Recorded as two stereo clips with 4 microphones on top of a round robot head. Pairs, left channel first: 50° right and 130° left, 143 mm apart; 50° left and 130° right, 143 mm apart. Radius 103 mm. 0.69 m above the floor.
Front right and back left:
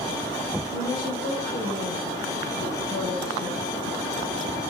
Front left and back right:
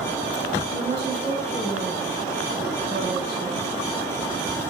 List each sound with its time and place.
0.7 s a woman speaking: 80° right, 4 m